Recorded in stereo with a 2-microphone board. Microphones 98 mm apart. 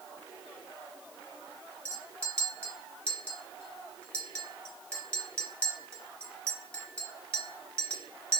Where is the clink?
15° left (ahead or behind), 0.8 m.